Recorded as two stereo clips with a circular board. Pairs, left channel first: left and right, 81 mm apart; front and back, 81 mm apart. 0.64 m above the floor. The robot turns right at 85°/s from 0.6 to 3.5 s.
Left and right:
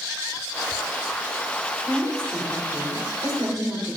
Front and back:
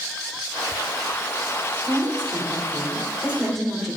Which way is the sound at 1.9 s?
135° left.